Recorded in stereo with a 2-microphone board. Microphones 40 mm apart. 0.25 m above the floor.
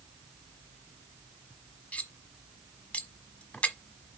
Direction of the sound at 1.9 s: 40° left (ahead or behind).